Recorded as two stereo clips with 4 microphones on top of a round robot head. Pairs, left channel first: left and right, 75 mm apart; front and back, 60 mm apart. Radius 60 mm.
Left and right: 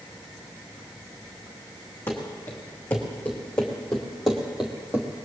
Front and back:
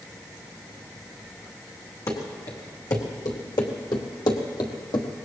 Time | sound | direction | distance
2.1 | running footsteps | 20° left | 3 m